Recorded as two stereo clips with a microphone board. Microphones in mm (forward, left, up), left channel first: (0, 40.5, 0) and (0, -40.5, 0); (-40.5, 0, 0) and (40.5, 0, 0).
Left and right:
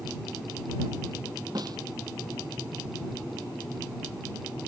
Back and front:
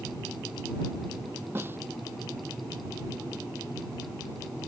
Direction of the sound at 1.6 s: 60° right.